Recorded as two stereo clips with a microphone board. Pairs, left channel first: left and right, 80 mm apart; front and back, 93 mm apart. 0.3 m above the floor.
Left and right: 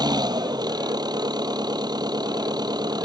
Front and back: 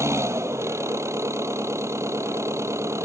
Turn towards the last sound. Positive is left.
turn(degrees=-120)